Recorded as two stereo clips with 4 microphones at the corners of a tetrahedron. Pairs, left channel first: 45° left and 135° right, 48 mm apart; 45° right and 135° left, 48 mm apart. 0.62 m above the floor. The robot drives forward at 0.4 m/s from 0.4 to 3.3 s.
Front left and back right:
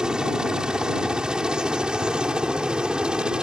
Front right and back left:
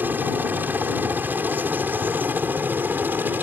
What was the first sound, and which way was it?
A helicopter, 160° left.